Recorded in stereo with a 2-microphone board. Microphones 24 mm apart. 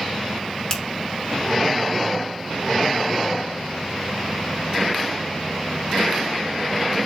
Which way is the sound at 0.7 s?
30° left (ahead or behind).